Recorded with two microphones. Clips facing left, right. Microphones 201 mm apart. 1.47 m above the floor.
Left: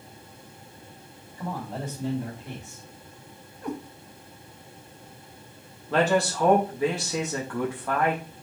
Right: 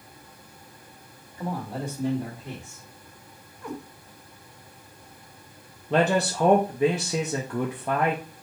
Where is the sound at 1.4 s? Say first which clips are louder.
Right 2 dB; 5° right (ahead or behind), 2 m; by 2.8 s 30° right (ahead or behind), 2 m.